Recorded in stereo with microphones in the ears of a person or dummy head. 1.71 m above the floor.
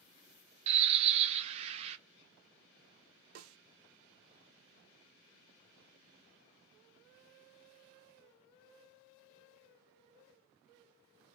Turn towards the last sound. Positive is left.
turn(degrees=-80)